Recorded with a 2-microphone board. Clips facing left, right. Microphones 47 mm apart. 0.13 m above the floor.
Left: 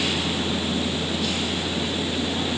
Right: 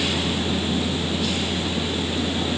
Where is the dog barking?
No dog barking in this recording.